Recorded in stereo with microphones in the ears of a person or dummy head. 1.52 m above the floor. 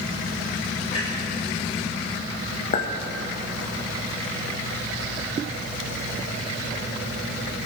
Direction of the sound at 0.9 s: 30° left (ahead or behind).